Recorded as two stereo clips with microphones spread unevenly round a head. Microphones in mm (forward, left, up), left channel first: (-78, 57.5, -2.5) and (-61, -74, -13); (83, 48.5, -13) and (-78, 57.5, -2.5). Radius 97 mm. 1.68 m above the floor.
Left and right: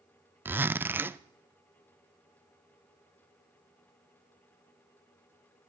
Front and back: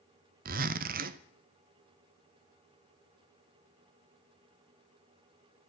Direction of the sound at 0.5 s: 160° right.